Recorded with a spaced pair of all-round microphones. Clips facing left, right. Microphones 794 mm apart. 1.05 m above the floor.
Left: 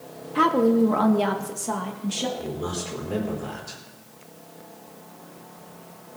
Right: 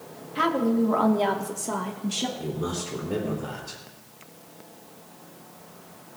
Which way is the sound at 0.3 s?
75° left (ahead or behind).